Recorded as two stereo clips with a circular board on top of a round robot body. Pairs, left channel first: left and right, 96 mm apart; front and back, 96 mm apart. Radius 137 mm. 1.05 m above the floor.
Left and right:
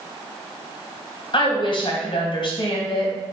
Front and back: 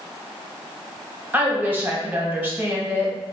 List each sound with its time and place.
1.3 s a woman speaking: 110° left, 1.3 m